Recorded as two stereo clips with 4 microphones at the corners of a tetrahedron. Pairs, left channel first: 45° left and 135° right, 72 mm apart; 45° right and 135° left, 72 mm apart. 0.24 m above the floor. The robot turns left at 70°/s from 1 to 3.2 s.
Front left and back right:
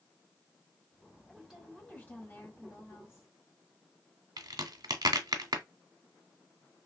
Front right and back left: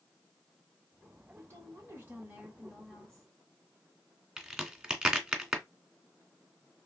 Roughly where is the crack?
Behind right.